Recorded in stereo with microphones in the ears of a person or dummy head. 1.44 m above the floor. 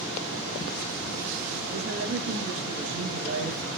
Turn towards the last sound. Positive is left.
turn(degrees=-50)  # may be behind; listen again after turning